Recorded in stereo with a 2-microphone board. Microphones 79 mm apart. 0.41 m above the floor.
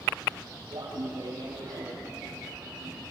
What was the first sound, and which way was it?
Laughter, 80° right.